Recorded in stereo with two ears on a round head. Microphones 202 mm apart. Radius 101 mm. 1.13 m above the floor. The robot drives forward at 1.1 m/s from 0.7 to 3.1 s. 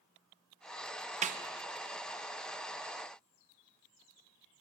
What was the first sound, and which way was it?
A snare drum, 30° right (ahead or behind).